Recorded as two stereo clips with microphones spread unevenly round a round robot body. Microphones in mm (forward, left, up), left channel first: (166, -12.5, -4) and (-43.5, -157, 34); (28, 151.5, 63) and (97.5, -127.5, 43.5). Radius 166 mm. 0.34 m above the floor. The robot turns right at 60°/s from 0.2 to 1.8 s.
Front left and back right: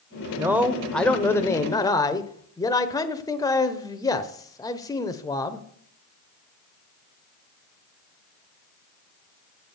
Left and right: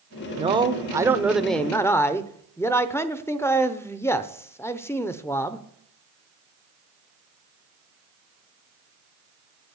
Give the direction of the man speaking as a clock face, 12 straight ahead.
2 o'clock.